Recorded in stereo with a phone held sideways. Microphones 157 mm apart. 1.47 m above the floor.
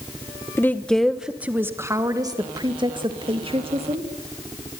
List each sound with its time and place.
0.6 s a woman speaking: 15° left (ahead or behind), 1.3 m; by 4.1 s 40° right (ahead or behind), 3 m